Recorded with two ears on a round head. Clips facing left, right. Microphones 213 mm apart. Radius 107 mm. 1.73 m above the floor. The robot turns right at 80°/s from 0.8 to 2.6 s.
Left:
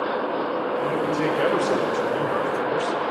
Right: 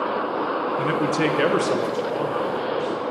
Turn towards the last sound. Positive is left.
turn(degrees=60)